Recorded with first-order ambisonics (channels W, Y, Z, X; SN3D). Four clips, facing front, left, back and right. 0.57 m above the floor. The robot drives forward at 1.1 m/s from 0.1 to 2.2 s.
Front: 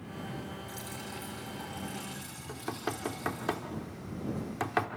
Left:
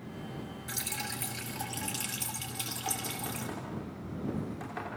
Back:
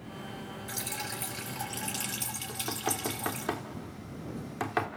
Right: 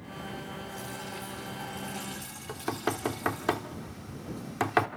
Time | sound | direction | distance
0.7 | dripping | 125° left | 2.5 m
2.5 | knocking | 90° right | 1.4 m